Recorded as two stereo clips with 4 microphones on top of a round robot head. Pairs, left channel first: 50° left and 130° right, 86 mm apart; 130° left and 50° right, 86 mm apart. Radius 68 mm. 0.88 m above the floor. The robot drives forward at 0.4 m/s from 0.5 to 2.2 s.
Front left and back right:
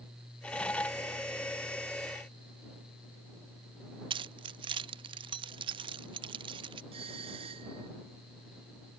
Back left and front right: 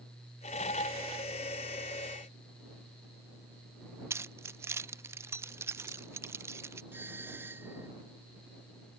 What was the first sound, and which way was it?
Keys jangling, 105° right.